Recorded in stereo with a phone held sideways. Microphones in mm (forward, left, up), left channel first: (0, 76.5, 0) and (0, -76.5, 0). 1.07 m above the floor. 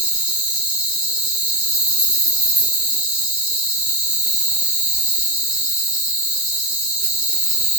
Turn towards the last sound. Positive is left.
turn(degrees=-5)  # may be behind; listen again after turning